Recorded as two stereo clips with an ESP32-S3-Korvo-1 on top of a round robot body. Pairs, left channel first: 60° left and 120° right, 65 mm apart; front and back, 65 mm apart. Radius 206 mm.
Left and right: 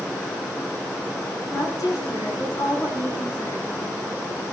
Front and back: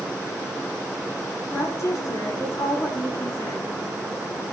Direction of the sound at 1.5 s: 35° left.